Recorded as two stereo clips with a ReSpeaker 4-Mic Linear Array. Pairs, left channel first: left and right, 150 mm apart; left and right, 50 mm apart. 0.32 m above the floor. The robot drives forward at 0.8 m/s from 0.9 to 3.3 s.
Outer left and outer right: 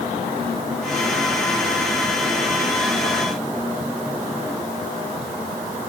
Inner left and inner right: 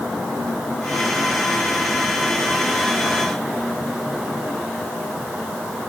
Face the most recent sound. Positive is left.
No sound to turn to.